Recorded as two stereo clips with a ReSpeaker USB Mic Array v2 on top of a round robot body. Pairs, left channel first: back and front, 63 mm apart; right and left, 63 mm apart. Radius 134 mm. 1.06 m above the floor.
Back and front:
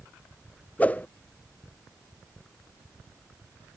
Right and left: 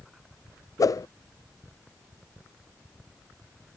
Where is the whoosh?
115° right.